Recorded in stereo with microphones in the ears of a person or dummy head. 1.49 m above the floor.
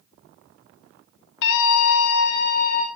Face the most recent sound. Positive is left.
turn(degrees=35)  # may be behind; listen again after turning